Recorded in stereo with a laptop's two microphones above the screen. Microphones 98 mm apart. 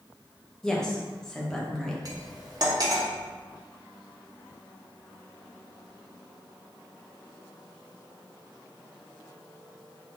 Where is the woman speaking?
5° left (ahead or behind), 0.6 m.